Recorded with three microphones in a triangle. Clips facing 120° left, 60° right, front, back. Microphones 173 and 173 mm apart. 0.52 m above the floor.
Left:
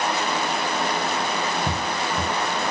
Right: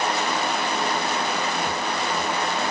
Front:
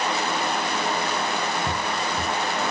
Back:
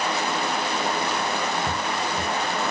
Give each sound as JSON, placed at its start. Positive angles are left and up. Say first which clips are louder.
{"t": 1.7, "sound": "footsteps", "louder": "even, even", "azimuth_deg": 80}